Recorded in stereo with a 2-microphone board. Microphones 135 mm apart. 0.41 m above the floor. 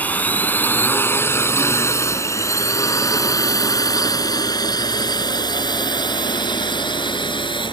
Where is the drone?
10° left (ahead or behind); by 7.7 s 35° left (ahead or behind).